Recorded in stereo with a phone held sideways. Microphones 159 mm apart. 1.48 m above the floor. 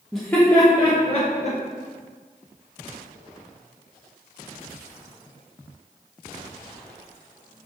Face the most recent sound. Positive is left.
turn(degrees=50)  # may be behind; listen again after turning